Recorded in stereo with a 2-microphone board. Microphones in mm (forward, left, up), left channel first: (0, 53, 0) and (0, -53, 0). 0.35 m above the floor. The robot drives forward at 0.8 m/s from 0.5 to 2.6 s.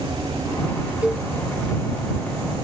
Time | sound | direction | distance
1.0 | a cowbell | 10° right (ahead or behind) | 1.0 m